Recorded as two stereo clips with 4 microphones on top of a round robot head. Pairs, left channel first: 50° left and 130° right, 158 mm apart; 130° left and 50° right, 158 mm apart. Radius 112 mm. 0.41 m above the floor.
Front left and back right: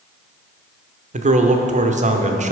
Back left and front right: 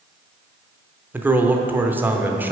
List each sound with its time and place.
1.1 s a man speaking: 125° right, 1.0 m